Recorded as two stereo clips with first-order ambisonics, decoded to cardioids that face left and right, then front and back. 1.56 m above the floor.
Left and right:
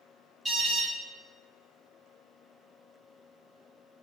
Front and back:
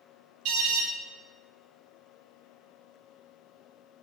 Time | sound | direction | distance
0.5 | an alarm | 155° right | 4 m